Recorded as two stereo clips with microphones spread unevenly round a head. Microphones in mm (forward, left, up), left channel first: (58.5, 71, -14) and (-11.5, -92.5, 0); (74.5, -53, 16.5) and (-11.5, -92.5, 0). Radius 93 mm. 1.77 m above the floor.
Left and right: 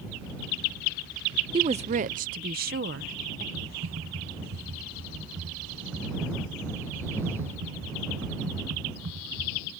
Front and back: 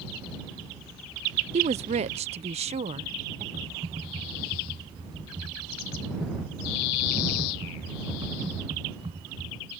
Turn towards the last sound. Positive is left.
turn(degrees=-115)